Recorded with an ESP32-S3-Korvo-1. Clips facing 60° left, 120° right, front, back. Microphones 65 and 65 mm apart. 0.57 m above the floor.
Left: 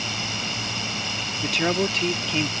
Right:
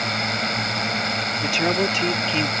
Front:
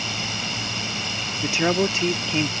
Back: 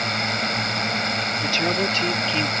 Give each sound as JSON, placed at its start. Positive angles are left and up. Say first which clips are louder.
{"t": 0.0, "sound": "a drone", "louder": "right 6 dB, back 6 dB", "azimuth_deg": -150}
{"t": 1.4, "sound": "a woman speaking", "louder": "right 1 dB, front 4 dB", "azimuth_deg": -40}